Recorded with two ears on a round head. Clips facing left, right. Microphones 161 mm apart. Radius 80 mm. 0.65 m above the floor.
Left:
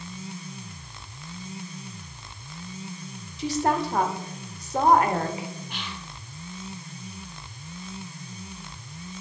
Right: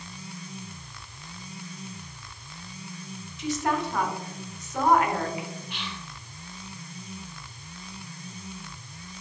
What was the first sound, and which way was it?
A woman speaking, 30° left (ahead or behind).